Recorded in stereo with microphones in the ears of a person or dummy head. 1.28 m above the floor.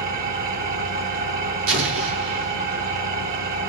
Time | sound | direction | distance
0.0 | an engine running | 55° right (ahead or behind) | 2.5 m
1.7 | an explosion | 80° right | 2 m